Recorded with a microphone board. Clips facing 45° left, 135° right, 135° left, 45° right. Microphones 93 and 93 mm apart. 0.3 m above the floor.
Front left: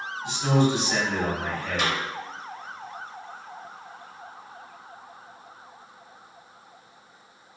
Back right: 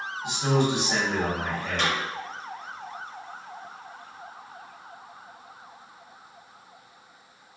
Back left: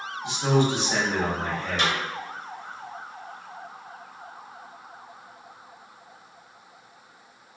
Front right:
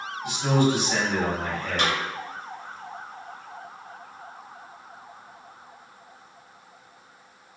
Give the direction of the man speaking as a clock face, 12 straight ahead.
6 o'clock.